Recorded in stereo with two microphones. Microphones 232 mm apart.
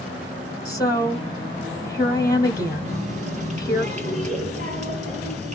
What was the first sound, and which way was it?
A woman speaking, 15° left (ahead or behind).